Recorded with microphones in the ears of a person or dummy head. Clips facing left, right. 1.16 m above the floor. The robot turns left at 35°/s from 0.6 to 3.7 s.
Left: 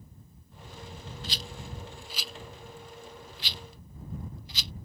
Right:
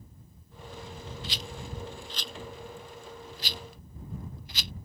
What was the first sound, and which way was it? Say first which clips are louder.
A rattle: even; 40° left (ahead or behind).